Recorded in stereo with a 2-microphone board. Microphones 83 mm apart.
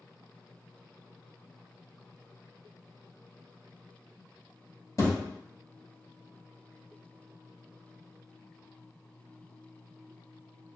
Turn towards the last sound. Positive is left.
turn(degrees=45)  # may be behind; listen again after turning